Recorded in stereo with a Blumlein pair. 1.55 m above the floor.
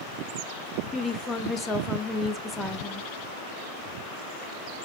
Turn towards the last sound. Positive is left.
turn(degrees=5)